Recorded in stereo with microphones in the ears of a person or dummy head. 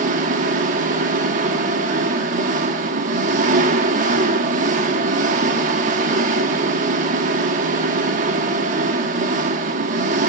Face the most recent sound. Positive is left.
turn(degrees=-45)  # may be behind; listen again after turning